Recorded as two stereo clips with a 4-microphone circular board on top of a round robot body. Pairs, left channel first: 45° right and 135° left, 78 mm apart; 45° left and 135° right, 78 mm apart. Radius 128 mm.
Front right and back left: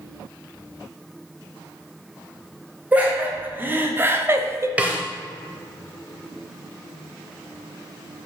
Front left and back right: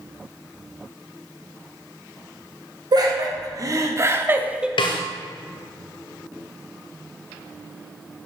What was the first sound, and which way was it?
Laughter, 155° right.